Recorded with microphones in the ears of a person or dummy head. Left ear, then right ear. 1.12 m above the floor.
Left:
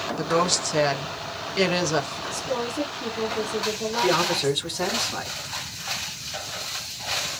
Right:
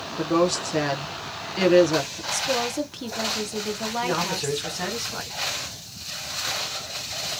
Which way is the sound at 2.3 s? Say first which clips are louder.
Right 4 dB; 20° right (ahead or behind).